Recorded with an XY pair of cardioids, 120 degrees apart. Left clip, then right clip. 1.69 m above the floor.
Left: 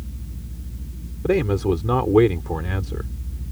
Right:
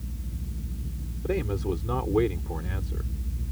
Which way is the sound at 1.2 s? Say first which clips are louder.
Left 9 dB; 45° left.